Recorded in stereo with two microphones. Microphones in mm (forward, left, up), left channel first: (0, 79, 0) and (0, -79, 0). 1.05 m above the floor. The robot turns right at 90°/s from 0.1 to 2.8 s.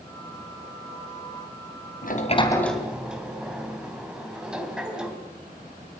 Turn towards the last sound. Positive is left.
turn(degrees=-5)  # may be behind; listen again after turning